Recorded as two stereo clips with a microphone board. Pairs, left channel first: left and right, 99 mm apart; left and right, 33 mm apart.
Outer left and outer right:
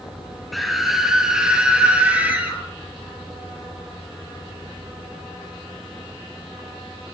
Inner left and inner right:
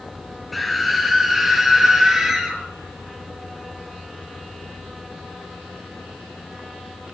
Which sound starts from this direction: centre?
A scream, at 0.5 s.